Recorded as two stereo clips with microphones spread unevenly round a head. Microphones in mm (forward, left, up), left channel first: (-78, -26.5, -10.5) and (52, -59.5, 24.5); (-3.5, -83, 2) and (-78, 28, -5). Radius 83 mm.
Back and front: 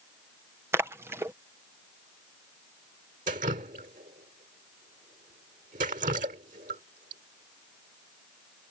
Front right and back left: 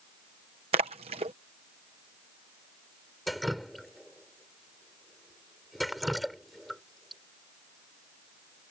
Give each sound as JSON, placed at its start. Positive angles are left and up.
{"t": 0.7, "sound": "a splash", "azimuth_deg": 65}
{"t": 3.3, "sound": "dripping", "azimuth_deg": 35}